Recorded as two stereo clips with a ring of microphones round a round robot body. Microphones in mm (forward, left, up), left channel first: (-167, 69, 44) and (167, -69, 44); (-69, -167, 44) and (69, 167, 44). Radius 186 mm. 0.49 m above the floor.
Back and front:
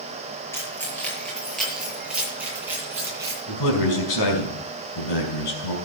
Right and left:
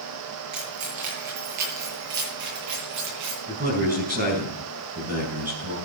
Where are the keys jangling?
75° left, 7 m; by 3.4 s 60° left, 9 m.